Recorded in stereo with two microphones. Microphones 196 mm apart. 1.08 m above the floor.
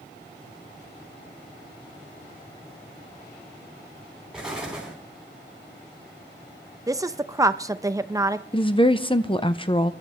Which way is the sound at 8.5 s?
25° left (ahead or behind).